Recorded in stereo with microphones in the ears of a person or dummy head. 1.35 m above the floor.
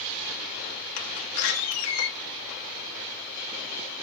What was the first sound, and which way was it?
A door slam, 90° left.